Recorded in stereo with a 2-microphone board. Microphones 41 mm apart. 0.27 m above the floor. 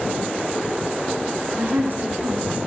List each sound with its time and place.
1.6 s a woman speaking: 50° right (ahead or behind), 3.5 m